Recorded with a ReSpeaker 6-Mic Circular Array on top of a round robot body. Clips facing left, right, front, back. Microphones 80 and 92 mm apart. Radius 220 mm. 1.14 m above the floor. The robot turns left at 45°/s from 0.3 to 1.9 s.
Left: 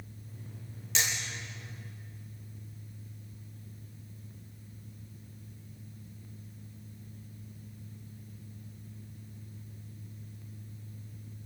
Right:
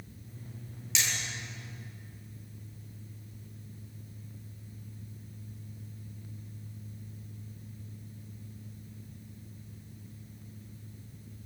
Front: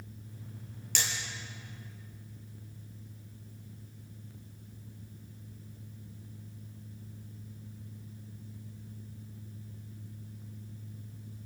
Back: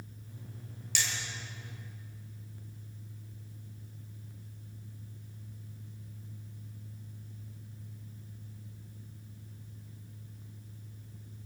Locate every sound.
0.9 s hammering: 45° left, 7 m; by 1.1 s 40° left, 7 m